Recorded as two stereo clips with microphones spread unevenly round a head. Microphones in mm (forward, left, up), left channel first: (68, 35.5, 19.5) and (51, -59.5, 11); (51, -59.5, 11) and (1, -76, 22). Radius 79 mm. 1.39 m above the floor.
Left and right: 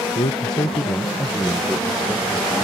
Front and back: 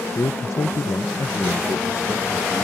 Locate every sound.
0.1 s a man speaking: 45° left; by 2.6 s 20° right